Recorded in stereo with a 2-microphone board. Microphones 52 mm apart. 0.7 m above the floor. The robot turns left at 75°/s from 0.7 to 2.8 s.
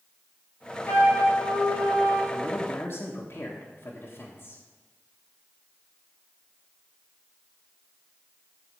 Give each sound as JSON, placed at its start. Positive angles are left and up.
{"t": 0.8, "sound": "a flute", "azimuth_deg": 130, "distance_m": 3.0}
{"t": 2.3, "sound": "a man speaking", "azimuth_deg": 110, "distance_m": 1.4}